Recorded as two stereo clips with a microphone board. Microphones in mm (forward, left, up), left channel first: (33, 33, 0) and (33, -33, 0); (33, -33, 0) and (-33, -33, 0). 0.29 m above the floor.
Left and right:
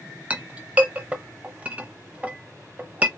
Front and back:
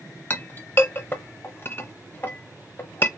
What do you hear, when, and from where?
0.3 s a clink: 30° right, 0.6 m